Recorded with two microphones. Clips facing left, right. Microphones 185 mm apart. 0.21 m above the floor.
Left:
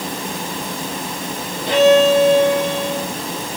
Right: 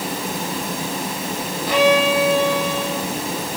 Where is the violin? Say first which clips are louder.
Left 5 dB; 25° left (ahead or behind), 5 m.